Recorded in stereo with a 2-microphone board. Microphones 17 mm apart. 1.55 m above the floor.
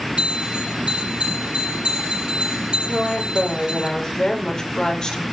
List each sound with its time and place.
0.2 s a bell: 70° right (ahead or behind), 6.5 m
2.9 s a woman speaking: 35° left (ahead or behind), 5.5 m